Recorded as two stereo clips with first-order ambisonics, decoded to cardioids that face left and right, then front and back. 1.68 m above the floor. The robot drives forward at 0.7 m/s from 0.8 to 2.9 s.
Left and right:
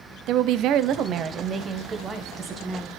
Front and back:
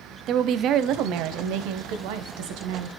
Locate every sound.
0.3 s a woman speaking: 130° right, 0.7 m; by 2.9 s 165° right, 2.0 m